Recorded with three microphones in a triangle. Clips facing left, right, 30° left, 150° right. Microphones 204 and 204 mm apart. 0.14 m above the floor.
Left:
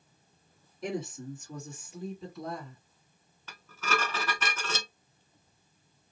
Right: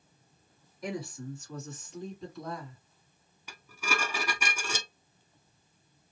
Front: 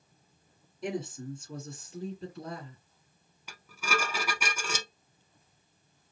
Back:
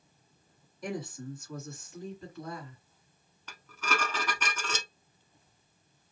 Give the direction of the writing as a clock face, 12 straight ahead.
No writing in this recording.